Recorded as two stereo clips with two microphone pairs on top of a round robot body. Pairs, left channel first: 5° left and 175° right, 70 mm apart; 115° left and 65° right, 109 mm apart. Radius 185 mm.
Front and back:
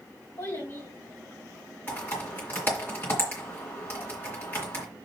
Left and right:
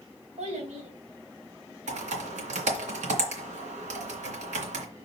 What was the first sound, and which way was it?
A child speaking, 45° right.